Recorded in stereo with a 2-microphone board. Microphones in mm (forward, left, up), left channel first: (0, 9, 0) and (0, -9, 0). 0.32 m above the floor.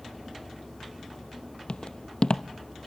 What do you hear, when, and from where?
1.7 s footsteps: 60° left (ahead or behind), 0.5 m